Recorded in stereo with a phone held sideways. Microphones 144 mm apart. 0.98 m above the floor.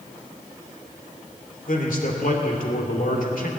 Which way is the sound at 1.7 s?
70° left (ahead or behind).